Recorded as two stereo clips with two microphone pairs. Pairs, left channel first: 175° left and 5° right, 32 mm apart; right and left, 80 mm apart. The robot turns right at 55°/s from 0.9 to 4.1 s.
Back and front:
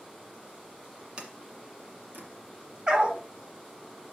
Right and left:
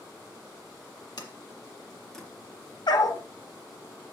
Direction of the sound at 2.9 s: 70° right.